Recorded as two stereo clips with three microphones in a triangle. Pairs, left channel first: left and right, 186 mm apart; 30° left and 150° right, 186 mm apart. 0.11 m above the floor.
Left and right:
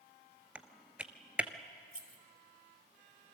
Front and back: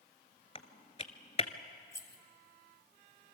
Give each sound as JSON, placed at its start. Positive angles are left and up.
{"t": 0.6, "sound": "typing on a keyboard", "azimuth_deg": -10, "distance_m": 1.0}
{"t": 1.9, "sound": "keys jangling", "azimuth_deg": -45, "distance_m": 1.7}